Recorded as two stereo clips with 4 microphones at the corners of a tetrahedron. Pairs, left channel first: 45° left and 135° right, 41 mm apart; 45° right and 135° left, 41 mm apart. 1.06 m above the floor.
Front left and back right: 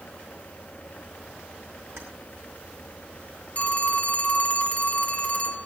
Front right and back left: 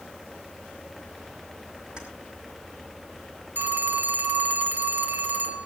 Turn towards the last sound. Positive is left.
turn(degrees=100)